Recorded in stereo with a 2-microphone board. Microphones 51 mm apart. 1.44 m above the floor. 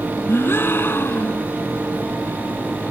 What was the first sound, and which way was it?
A gasp, 50° left (ahead or behind).